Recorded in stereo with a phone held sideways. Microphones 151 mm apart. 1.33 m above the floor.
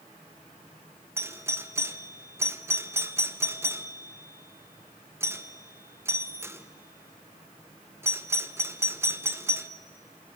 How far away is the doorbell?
About 0.9 m.